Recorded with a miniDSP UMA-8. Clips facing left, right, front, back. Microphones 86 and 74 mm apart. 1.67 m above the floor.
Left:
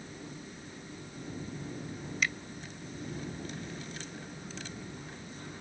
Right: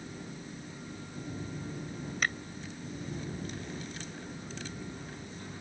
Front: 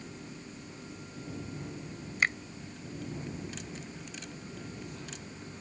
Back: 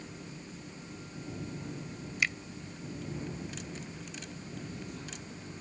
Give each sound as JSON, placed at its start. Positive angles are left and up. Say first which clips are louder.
{"t": 2.2, "sound": "a finger snap", "louder": "right 1 dB, front 4 dB", "azimuth_deg": -45}